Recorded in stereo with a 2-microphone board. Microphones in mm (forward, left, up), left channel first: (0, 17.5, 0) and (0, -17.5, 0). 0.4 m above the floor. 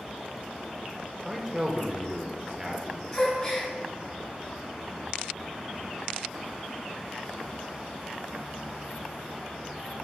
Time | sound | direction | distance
1.2 | a man speaking | 20° right (ahead or behind) | 0.8 m
3.1 | a gasp | 15° left (ahead or behind) | 1.5 m